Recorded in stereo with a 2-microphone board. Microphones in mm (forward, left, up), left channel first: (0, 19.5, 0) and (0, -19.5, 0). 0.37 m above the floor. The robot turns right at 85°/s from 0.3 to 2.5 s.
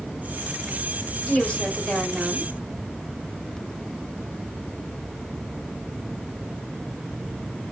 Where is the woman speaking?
105° left, 1.3 m; by 2.5 s 150° right, 1.3 m.